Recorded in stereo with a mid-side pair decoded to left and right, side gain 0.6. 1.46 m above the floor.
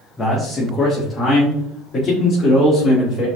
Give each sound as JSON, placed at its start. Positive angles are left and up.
{"t": 0.2, "sound": "a man speaking", "azimuth_deg": 25, "distance_m": 1.4}